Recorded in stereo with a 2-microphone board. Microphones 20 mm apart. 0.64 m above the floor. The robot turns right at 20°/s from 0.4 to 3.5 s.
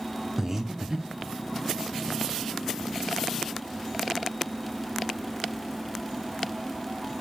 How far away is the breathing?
About 0.5 m.